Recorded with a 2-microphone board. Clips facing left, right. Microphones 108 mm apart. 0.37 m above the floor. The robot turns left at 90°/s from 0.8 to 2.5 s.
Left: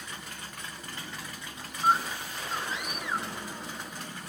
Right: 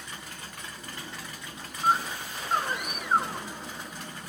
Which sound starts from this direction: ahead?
A scream, at 1.8 s.